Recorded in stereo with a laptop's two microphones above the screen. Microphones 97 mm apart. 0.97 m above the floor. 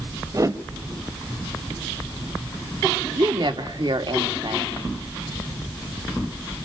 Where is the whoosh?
35° right (ahead or behind), 0.8 m.